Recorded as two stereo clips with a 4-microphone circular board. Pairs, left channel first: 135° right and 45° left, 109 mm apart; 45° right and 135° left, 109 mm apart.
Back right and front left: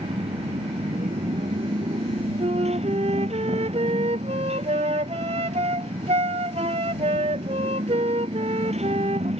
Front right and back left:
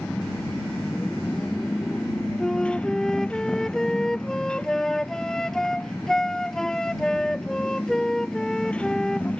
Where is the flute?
40° left.